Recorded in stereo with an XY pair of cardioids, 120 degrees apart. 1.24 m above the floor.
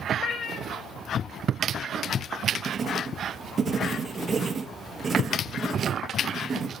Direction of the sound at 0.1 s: 50° left.